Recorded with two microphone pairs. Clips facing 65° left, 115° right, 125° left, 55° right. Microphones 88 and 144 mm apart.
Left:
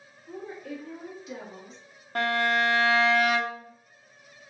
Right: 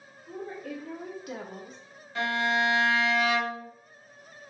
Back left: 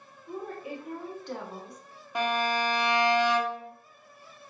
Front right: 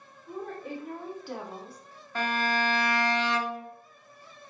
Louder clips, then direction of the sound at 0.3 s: Right 1 dB, even; 160° right.